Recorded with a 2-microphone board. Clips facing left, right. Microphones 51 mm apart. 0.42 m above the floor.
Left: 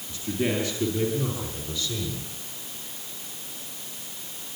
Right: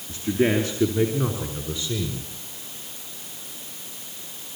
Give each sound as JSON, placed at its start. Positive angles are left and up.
{"t": 0.1, "sound": "a man speaking", "side_deg": -40, "distance_m": 5.5}